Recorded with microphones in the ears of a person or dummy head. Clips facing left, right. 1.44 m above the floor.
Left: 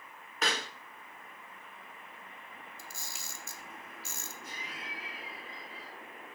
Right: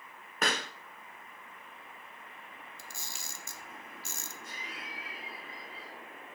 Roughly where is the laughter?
Centre.